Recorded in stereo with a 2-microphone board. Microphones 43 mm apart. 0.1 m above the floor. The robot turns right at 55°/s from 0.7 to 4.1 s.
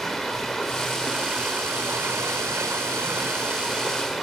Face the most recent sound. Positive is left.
turn(degrees=0)